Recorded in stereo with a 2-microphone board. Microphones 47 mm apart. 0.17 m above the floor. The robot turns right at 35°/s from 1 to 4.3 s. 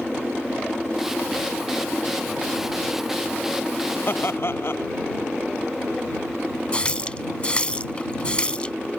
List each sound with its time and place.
4.1 s laughter: 50° left (ahead or behind); by 4.9 s 55° left (ahead or behind)
6.7 s a running tap: 25° left (ahead or behind)